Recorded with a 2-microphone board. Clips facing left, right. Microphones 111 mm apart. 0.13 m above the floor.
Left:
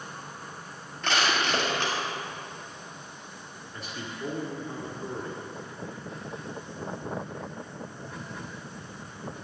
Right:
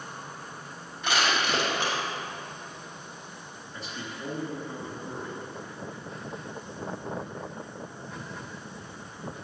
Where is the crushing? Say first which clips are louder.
Even; 15° right (ahead or behind), 2.5 m.